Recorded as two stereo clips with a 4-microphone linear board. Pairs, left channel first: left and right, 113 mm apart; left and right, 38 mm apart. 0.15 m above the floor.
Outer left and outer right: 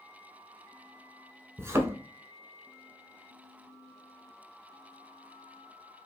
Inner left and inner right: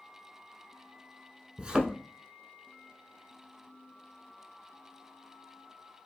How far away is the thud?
About 0.7 m.